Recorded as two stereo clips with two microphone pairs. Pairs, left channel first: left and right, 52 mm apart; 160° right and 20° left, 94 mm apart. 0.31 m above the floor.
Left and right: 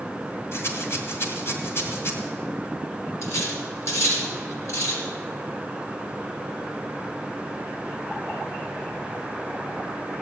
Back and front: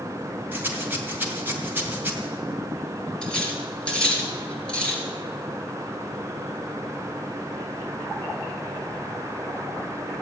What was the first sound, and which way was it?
A rattle, 85° left.